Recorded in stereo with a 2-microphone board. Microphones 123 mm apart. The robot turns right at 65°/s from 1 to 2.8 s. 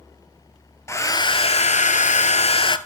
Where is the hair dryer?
25° left, 0.6 m; by 2.8 s 140° left, 0.6 m.